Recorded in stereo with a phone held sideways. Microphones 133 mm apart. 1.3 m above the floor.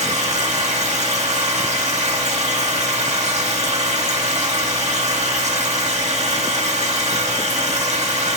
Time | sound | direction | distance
0.0 | a machine running | 55° right (ahead or behind) | 1.3 m